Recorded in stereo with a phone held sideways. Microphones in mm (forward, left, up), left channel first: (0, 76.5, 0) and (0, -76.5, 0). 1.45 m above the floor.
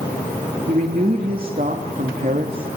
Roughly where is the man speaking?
Right.